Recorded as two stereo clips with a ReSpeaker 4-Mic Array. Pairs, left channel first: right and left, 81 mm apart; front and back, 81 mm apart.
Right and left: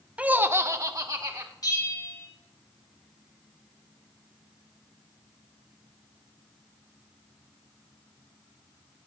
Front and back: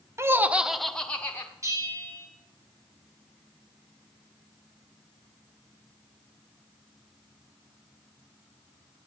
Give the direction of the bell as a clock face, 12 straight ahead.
4 o'clock.